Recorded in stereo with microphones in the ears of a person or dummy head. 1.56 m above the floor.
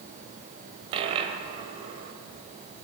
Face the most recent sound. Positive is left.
turn(degrees=-25)  # may be behind; listen again after turning